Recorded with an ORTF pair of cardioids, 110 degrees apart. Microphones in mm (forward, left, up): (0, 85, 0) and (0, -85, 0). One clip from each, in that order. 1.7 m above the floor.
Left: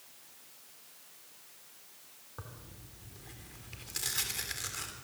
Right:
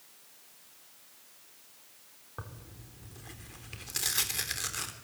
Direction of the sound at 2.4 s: 30° right.